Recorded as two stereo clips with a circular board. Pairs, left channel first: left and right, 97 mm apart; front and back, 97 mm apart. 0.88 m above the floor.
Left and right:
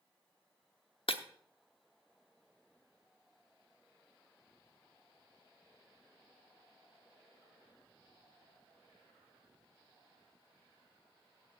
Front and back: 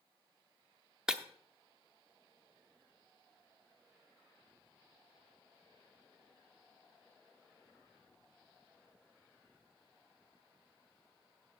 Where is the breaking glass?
100° left, 0.7 m.